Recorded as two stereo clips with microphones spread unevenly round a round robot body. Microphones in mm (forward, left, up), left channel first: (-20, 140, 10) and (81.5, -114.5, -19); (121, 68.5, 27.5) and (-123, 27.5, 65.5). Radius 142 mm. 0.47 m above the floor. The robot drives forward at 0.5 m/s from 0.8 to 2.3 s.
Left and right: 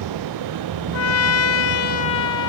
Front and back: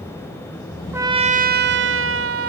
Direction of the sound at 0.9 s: 100° left.